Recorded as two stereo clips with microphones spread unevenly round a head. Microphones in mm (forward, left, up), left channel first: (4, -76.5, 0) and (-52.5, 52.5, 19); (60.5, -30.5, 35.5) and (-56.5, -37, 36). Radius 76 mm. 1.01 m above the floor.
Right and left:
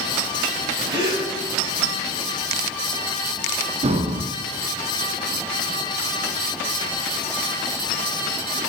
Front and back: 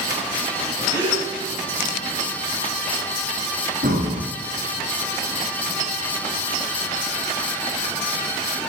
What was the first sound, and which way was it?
A gasp, 120° left.